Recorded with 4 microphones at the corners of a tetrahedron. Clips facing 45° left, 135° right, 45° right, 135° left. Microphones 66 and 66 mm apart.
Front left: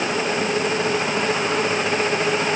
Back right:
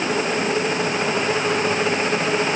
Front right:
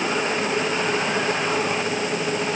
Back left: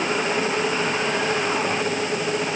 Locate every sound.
Only background noise.